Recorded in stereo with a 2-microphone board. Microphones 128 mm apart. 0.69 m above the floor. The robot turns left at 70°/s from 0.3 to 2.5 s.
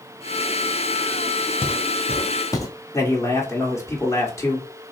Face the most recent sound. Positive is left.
turn(degrees=20)  # may be behind; listen again after turning